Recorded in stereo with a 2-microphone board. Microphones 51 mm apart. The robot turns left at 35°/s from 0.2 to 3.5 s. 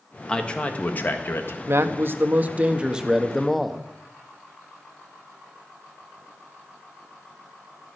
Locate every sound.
0.3 s a man speaking: 165° left, 1.4 m; by 1.6 s 120° left, 1.4 m
1.7 s a man speaking: 120° right, 1.0 m; by 3.8 s straight behind, 1.0 m